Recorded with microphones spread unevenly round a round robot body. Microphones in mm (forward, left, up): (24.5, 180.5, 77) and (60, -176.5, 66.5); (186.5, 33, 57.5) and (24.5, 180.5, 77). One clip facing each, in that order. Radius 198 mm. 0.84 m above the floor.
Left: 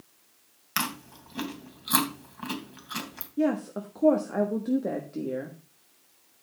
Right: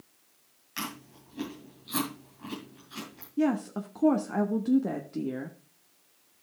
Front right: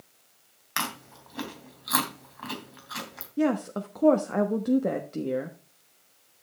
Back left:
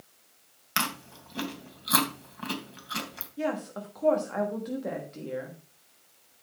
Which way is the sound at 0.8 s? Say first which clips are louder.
Left 3 dB, back left 1 dB; 80° left.